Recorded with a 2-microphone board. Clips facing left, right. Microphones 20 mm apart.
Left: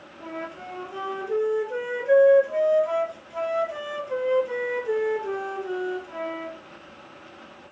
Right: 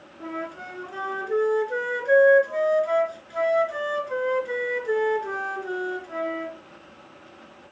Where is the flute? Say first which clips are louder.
Right 2 dB; 45° right (ahead or behind), 2.5 m.